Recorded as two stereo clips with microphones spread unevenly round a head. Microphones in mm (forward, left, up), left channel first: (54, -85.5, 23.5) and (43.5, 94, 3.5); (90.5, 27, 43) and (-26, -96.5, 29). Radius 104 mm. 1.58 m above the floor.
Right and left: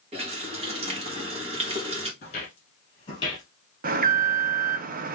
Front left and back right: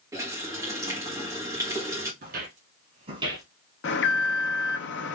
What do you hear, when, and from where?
0.1 s a running tap: 150° left, 1.0 m
2.2 s footsteps: 120° right, 2.5 m; by 3.5 s 80° right, 1.7 m
3.8 s an alarm: 50° left, 0.6 m